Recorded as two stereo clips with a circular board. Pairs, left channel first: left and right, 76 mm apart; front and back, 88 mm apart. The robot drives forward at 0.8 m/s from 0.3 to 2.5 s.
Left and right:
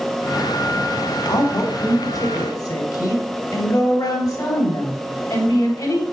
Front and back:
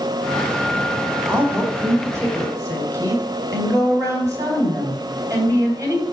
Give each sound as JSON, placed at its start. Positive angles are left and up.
{"t": 1.3, "sound": "a woman speaking", "azimuth_deg": 115, "distance_m": 3.0}